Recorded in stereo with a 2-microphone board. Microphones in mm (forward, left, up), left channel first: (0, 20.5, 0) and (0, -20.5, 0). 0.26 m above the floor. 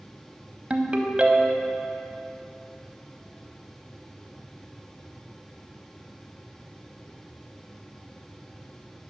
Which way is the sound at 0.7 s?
30° right (ahead or behind).